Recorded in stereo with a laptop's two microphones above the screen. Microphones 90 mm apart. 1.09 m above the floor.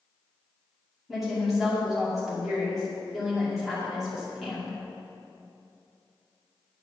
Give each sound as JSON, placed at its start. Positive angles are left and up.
{"t": 1.1, "sound": "a woman speaking", "side_deg": 0, "distance_m": 2.0}